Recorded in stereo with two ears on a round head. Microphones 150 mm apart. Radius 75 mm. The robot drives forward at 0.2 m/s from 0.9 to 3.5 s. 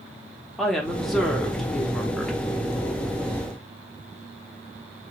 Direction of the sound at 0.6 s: Centre (ahead or behind).